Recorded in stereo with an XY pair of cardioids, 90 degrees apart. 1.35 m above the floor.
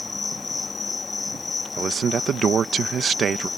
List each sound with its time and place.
0.0 s an insect: 30° left
1.8 s a man speaking: 60° right